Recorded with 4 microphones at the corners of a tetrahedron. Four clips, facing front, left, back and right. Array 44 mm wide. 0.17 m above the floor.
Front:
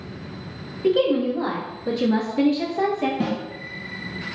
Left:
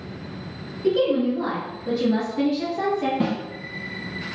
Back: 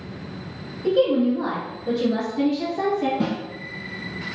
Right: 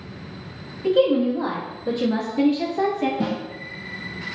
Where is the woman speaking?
35° right, 2.0 m; by 3.1 s 55° right, 1.2 m.